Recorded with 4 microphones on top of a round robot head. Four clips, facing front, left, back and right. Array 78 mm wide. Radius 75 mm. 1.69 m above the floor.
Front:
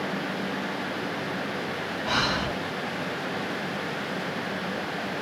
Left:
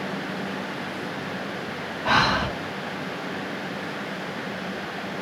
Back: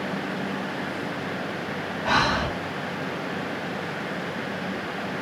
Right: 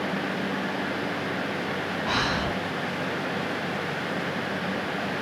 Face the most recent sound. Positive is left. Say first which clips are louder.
# left 7 dB, back 5 dB
turn(degrees=120)